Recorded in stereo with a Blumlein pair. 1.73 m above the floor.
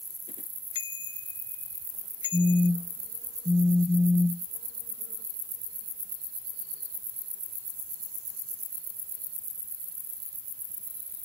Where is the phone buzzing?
5° left.